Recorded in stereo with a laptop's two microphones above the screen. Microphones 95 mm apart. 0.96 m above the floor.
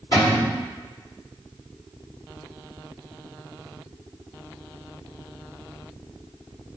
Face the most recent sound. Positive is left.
turn(degrees=45)  # may be behind; listen again after turning